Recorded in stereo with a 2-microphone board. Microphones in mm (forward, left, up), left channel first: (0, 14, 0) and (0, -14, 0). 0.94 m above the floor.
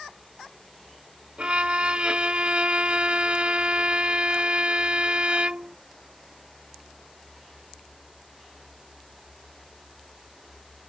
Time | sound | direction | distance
1.4 | a violin | 45° right (ahead or behind) | ?